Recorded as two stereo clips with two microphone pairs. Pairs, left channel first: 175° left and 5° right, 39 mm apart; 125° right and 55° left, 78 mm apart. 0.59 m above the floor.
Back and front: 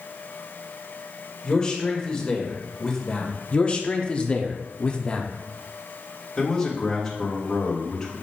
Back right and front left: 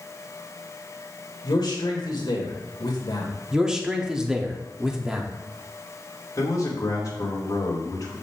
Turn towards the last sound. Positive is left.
turn(degrees=-115)